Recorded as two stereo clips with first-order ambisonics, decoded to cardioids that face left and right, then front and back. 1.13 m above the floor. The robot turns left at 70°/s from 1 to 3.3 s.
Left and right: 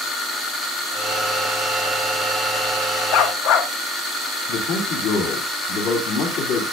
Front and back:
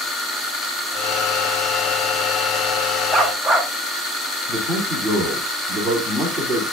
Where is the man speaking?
75° left, 2.5 m.